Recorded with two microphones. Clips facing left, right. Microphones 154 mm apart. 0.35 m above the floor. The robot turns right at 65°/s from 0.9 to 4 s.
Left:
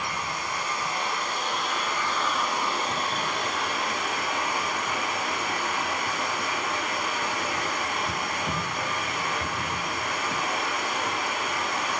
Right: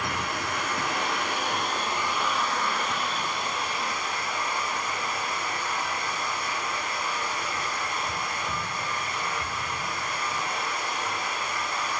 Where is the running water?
95° right, 1.9 m; by 12.0 s 110° left, 1.9 m.